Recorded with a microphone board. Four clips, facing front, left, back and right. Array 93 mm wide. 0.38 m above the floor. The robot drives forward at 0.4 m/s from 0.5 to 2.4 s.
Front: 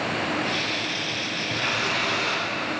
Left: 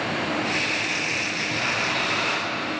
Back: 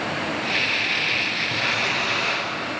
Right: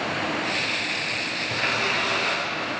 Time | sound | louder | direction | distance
1.5 | a running tap | right 2 dB, even | 60° right | 4.5 m